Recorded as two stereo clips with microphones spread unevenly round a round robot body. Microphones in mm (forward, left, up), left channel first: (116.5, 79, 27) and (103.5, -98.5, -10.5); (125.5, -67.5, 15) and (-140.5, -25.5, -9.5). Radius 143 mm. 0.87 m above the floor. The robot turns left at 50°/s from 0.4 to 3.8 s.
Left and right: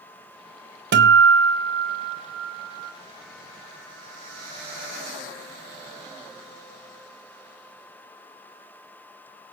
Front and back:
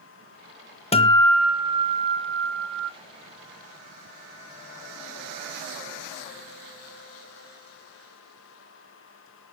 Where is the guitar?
70° right, 1.2 m; by 2.9 s 170° right, 1.2 m.